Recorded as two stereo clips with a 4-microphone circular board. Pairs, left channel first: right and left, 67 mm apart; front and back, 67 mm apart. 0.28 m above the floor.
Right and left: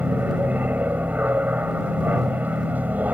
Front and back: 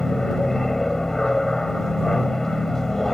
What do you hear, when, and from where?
0.0 s an aircraft: 75° left